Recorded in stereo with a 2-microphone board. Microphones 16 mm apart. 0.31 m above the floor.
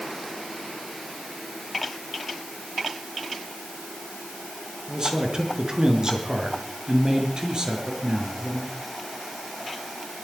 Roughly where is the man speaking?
Right.